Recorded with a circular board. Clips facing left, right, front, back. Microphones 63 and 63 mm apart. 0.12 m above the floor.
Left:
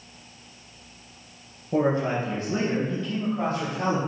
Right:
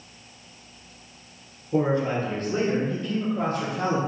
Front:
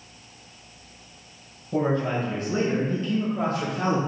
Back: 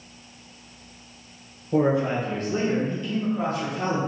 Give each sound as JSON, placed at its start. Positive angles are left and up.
{"t": 1.7, "sound": "a man speaking", "azimuth_deg": 120, "distance_m": 1.4}